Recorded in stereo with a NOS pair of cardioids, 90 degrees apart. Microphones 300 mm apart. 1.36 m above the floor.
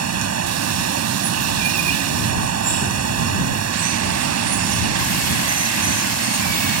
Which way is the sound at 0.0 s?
55° right.